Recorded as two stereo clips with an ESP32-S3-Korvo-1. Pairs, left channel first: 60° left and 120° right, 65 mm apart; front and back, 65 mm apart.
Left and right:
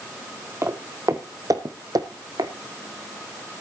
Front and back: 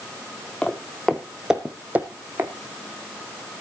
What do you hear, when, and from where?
0.6 s footsteps: 75° right, 1.4 m; by 2.5 s 125° right, 1.7 m